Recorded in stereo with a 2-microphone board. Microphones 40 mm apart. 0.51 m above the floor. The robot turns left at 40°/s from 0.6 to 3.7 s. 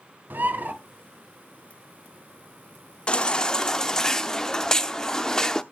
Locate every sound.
0.3 s a bird: 50° right (ahead or behind), 1.1 m; by 0.7 s 45° right (ahead or behind), 1.1 m
3.1 s a baby crying: 25° left (ahead or behind), 0.5 m; by 5.6 s 15° left (ahead or behind), 0.5 m